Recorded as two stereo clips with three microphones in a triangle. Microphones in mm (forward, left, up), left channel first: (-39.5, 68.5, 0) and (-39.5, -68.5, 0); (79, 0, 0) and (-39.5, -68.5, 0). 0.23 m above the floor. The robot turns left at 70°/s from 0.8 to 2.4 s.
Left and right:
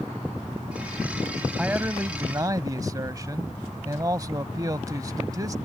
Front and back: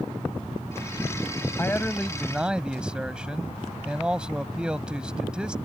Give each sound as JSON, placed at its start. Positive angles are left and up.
{"t": 1.6, "sound": "a man speaking", "azimuth_deg": -15}